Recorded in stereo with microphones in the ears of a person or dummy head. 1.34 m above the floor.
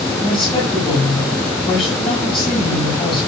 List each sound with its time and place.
0.2 s a woman speaking: 25° left (ahead or behind), 7 m